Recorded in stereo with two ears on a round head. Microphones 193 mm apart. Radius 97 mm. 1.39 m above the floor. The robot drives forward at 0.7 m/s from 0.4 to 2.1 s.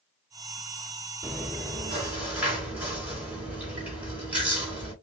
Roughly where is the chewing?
Centre.